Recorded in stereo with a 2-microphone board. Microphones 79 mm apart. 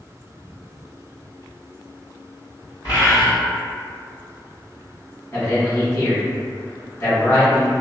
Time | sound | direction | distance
2.8 | a bird | 75° left (ahead or behind) | 1.5 m
5.3 | a man speaking | 35° left (ahead or behind) | 1.4 m